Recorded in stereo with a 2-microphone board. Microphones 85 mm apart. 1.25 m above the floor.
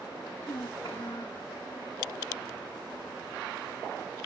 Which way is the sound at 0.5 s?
65° left (ahead or behind).